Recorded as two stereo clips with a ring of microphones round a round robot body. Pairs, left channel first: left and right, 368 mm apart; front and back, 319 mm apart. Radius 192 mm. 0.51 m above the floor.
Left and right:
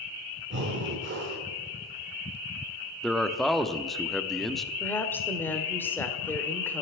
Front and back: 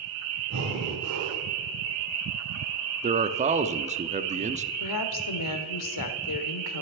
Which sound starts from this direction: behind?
A man speaking, at 3.0 s.